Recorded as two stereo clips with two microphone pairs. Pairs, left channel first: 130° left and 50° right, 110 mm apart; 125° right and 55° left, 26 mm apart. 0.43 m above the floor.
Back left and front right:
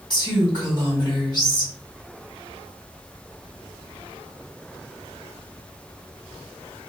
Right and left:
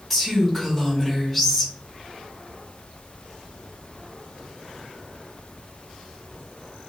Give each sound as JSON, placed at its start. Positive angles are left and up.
{"t": 0.1, "sound": "a woman speaking", "azimuth_deg": 135, "distance_m": 1.6}